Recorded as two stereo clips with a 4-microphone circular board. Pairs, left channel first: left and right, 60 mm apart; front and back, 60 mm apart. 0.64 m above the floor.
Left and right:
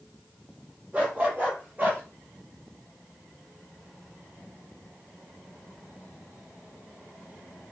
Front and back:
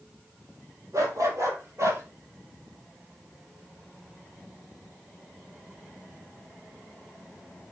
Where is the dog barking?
150° right, 5.5 m; by 2.0 s 145° right, 4.5 m.